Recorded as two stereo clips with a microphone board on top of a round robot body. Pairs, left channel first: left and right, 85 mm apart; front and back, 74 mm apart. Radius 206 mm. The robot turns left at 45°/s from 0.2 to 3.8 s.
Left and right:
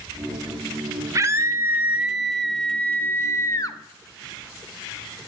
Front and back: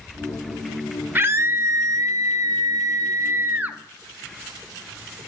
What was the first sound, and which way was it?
A scream, 125° right.